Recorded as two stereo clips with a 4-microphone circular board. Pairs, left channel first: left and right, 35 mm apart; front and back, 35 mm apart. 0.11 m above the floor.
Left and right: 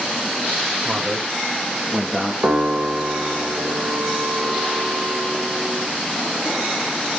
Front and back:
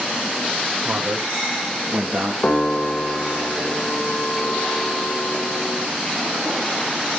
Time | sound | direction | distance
0.8 | a man speaking | 130° right | 5.5 m
2.4 | a piano | 60° right | 4 m